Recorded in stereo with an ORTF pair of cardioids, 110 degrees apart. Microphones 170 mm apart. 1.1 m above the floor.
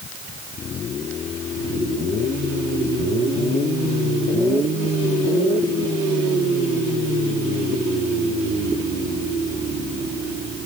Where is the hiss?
I don't hear a hiss.